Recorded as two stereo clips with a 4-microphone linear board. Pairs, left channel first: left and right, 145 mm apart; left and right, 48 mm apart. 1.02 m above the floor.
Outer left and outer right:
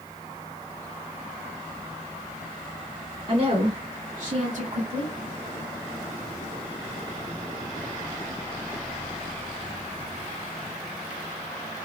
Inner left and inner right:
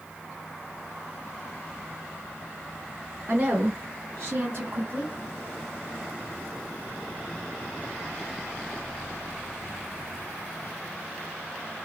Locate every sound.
3.3 s a woman speaking: 50° right (ahead or behind), 1.1 m; by 5.1 s 40° right (ahead or behind), 1.0 m